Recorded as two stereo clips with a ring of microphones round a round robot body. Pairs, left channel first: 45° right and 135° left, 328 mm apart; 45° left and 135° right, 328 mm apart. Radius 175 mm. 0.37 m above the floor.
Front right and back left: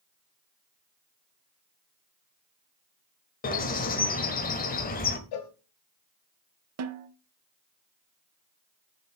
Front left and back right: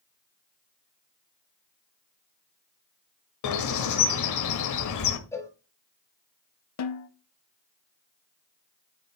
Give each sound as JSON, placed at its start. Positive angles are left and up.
{"t": 3.4, "sound": "a bird", "azimuth_deg": 20, "distance_m": 1.2}
{"t": 5.3, "sound": "a cowbell", "azimuth_deg": -35, "distance_m": 1.2}
{"t": 6.8, "sound": "a snare drum", "azimuth_deg": 90, "distance_m": 0.8}